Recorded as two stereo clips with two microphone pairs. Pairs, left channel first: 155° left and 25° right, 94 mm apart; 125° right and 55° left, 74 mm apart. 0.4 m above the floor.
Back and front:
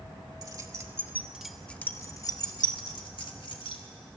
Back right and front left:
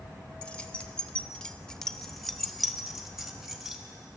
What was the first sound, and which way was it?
Keys jangling, 55° right.